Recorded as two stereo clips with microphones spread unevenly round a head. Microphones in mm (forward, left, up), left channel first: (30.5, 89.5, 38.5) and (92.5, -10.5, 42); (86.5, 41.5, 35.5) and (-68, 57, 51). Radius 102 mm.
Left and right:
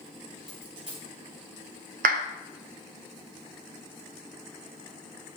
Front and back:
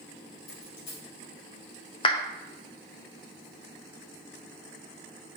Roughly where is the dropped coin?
Ahead.